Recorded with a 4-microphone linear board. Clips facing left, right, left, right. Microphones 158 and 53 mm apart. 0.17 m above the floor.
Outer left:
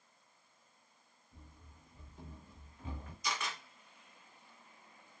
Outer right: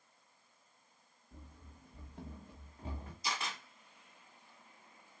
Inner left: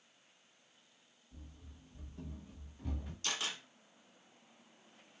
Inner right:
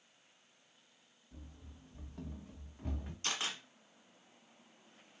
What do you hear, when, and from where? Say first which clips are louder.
1.3 s running footsteps: outer right 4 dB, inner right 2 dB; 80° right, 0.7 m; by 3.1 s 30° right (ahead or behind), 0.9 m
3.2 s a camera shutter: outer left 1 dB, inner right 1 dB; 30° right (ahead or behind), 1.0 m